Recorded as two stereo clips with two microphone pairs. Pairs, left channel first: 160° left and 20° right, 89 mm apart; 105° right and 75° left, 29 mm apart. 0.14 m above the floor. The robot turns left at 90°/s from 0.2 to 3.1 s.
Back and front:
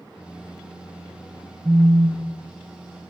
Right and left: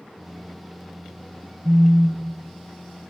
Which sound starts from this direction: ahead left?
A phone buzzing, at 1.6 s.